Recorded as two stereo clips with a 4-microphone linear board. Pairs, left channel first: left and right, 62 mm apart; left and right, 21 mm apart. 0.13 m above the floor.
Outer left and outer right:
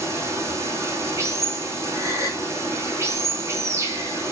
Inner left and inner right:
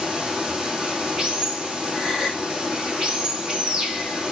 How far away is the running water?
About 2.5 m.